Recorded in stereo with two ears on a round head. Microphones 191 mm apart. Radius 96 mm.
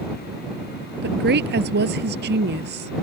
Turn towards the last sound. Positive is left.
turn(degrees=-50)  # may be behind; listen again after turning